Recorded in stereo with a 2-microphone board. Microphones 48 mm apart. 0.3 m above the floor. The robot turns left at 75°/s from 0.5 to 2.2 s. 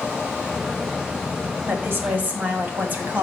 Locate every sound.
1.7 s a woman speaking: 85° right, 2 m; by 3.2 s 125° right, 2 m